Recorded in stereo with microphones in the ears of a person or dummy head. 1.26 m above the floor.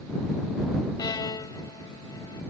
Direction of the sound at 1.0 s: 25° left (ahead or behind).